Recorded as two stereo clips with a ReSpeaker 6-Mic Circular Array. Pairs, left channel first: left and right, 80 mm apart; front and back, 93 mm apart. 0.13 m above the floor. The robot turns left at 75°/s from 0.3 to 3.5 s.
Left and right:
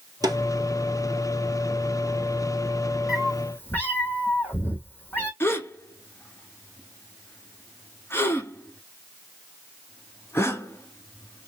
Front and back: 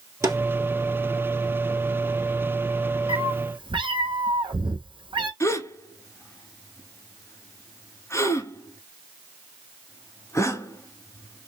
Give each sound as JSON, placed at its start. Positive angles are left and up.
{"t": 0.2, "sound": "a snare drum", "azimuth_deg": -125, "distance_m": 1.5}
{"t": 3.1, "sound": "a cat meowing", "azimuth_deg": -175, "distance_m": 1.2}
{"t": 5.4, "sound": "a gasp", "azimuth_deg": 40, "distance_m": 1.0}